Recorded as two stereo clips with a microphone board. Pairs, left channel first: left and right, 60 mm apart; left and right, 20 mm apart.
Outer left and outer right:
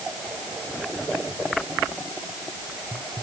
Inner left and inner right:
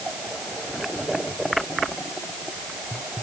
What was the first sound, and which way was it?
Only background noise.